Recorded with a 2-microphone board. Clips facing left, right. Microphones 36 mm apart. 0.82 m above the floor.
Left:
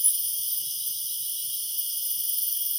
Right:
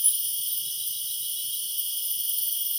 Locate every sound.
0.0 s an insect: 40° right (ahead or behind), 0.9 m